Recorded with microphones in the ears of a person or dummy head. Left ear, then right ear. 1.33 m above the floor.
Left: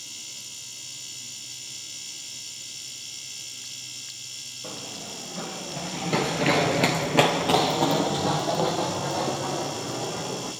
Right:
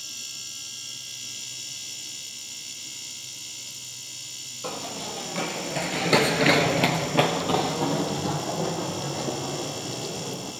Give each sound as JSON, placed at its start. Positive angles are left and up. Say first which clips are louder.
{"t": 4.6, "sound": "running footsteps", "louder": "right 7 dB", "side_deg": -65, "distance_m": 3.0}